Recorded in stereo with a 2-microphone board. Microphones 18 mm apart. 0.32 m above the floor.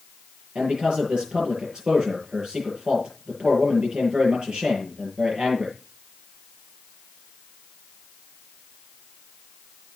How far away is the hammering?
I don't hear hammering.